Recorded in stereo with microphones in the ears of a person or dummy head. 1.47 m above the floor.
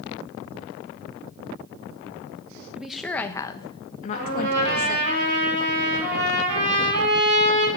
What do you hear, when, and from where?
2.8 s a woman speaking: 5° right (ahead or behind), 1.1 m; by 5.1 s 60° left (ahead or behind), 1.9 m
4.1 s a trumpet: 65° right (ahead or behind), 6 m